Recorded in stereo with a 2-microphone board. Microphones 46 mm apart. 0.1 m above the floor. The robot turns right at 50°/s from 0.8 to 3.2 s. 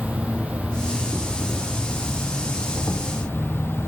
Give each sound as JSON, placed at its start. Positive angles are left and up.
{"t": 0.0, "sound": "an insect", "azimuth_deg": -35, "distance_m": 2.0}